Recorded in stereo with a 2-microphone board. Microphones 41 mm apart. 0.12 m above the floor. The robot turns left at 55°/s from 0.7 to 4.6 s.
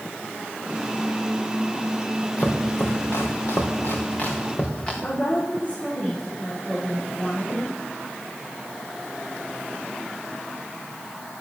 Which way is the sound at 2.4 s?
35° left (ahead or behind).